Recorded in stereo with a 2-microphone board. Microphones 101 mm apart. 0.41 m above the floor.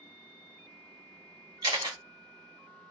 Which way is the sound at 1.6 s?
40° right (ahead or behind).